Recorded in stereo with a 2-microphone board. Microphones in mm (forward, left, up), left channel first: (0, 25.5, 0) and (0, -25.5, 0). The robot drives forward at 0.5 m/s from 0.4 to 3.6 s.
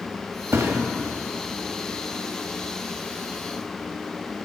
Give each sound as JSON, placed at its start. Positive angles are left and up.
{"t": 0.5, "sound": "a thud", "side_deg": -75, "distance_m": 1.1}